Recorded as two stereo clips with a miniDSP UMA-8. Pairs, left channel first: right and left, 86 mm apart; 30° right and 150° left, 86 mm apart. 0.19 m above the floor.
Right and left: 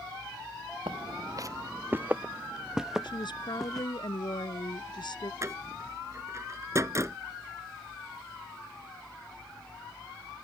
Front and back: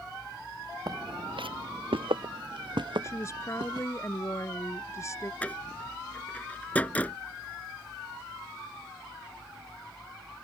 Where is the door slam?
40° left.